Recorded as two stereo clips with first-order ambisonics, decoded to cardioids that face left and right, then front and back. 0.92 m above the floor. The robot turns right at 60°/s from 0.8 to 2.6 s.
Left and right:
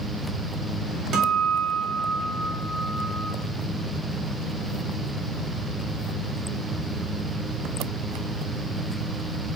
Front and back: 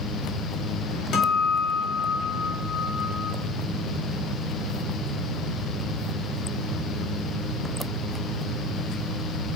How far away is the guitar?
About 0.8 m.